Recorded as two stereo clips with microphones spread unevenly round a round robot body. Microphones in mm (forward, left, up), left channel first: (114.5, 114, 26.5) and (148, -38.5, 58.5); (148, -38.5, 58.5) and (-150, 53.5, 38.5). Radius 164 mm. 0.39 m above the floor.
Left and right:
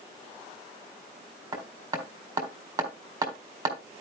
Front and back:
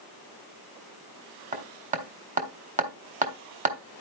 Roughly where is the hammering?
Behind right.